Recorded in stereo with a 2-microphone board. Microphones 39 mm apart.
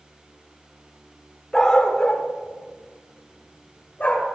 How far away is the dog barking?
About 1.9 m.